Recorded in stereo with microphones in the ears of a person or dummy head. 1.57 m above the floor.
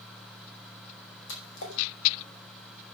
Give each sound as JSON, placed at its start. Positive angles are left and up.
{"t": 1.3, "sound": "a splash", "side_deg": 80, "distance_m": 5.0}